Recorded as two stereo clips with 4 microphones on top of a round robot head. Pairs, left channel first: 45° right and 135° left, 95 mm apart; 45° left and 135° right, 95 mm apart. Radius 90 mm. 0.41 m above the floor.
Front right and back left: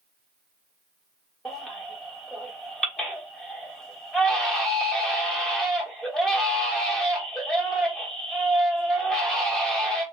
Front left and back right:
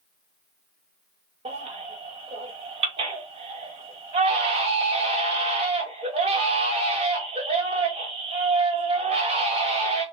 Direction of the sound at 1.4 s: 130° right.